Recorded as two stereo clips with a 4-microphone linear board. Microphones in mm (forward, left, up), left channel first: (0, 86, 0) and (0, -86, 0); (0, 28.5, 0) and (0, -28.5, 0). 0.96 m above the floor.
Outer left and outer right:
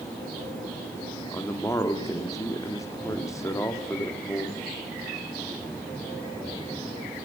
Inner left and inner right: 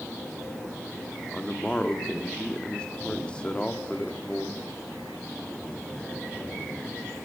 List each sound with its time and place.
1.3 s a man speaking: 20° left (ahead or behind), 1.6 m